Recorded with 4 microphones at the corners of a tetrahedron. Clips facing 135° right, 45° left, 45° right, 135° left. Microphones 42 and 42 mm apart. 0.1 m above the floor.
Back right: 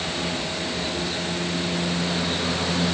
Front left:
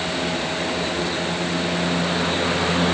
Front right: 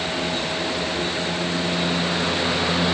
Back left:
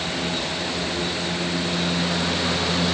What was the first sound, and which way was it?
Only background noise.